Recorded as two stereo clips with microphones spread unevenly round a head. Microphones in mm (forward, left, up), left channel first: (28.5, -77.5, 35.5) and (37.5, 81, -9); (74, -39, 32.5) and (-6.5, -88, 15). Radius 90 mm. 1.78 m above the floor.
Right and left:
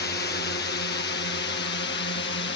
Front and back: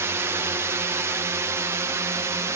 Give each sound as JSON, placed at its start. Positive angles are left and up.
{"t": 0.0, "sound": "a drone", "azimuth_deg": -105}